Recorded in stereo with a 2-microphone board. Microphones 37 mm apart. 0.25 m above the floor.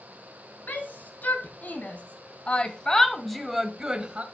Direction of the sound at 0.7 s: 55° left (ahead or behind).